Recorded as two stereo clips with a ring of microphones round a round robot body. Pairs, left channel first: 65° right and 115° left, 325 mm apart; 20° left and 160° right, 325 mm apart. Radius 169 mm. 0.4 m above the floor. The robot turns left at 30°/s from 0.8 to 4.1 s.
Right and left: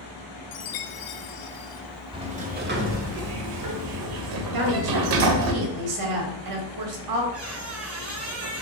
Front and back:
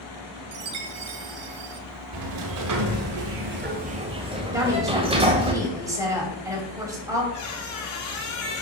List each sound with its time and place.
0.5 s a chime: 115° right, 0.6 m; by 1.8 s 145° right, 0.6 m
2.1 s a sliding door: 170° right, 1.1 m; by 5.5 s 130° left, 1.1 m
4.5 s a woman speaking: 120° left, 2.5 m
7.3 s a squeak: 60° left, 2.5 m